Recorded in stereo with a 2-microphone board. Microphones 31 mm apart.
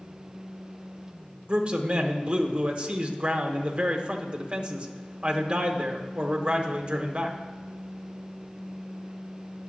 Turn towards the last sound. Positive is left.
turn(degrees=-40)  # may be behind; listen again after turning